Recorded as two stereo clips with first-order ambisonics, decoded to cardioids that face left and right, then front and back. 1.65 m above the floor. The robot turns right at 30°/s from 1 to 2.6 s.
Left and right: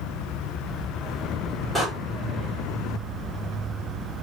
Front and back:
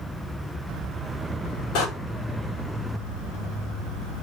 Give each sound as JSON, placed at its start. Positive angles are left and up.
{"t": 1.8, "sound": "a door slam", "azimuth_deg": 0, "distance_m": 6.0}